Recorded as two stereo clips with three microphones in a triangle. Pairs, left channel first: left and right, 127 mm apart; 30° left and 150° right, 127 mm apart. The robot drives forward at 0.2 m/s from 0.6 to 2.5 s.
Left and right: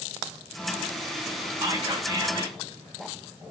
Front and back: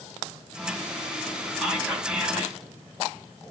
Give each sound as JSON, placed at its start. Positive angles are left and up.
{"t": 1.6, "sound": "whispering", "azimuth_deg": -70, "distance_m": 1.0}